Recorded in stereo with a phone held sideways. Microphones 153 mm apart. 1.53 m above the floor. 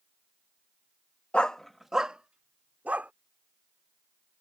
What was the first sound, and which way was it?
A dog barking, 10° left (ahead or behind).